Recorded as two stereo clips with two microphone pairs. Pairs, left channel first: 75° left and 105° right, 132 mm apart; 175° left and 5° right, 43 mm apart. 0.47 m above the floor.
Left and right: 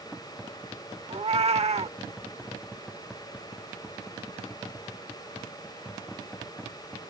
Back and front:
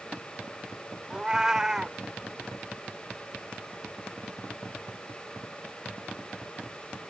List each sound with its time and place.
1.1 s a cat meowing: 75° right